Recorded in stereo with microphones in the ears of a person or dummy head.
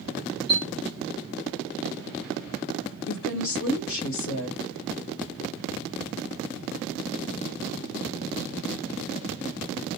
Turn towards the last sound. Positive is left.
turn(degrees=70)  # may be behind; listen again after turning